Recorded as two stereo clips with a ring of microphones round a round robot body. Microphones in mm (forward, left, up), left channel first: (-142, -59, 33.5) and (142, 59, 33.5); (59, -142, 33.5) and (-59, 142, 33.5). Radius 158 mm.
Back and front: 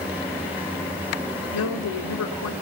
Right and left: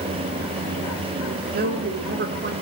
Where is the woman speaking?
170° left, 3 m.